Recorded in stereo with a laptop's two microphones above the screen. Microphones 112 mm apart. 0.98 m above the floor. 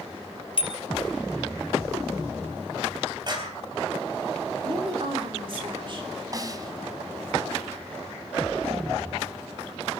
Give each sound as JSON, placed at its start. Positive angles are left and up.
{"t": 0.6, "sound": "a bicycle bell", "side_deg": 50, "distance_m": 3.5}
{"t": 3.3, "sound": "a clap", "side_deg": -40, "distance_m": 4.0}
{"t": 4.6, "sound": "a woman speaking", "side_deg": -45, "distance_m": 2.5}
{"t": 6.3, "sound": "a snare drum", "side_deg": -30, "distance_m": 1.7}